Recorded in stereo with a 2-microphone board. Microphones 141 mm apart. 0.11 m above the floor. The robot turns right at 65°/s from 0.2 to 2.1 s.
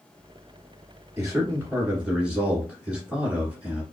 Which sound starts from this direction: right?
A man speaking, at 1.2 s.